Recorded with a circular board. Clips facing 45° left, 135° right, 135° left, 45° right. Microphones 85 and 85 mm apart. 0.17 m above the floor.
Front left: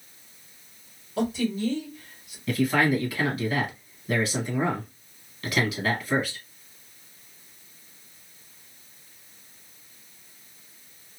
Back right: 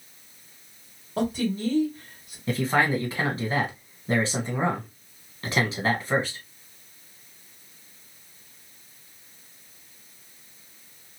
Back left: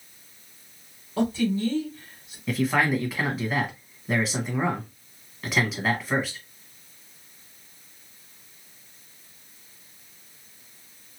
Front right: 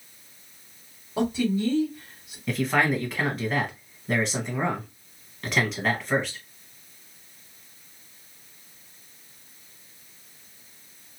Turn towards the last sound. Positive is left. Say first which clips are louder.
# front left 1 dB, even
turn(degrees=-140)